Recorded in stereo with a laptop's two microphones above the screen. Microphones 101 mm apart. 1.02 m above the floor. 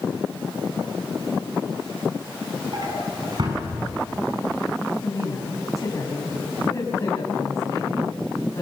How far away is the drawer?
About 6 m.